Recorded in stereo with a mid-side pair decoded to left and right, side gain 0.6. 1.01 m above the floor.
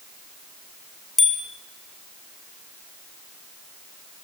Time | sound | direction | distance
1.2 | a bicycle bell | 20° left | 4 m